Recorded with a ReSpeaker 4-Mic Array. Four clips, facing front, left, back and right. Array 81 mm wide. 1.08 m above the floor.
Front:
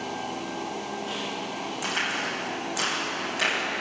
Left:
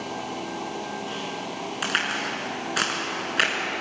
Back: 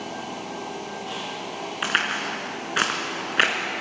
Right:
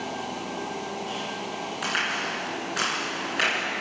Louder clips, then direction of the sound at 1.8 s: Left 1 dB, back 5 dB; 165° left.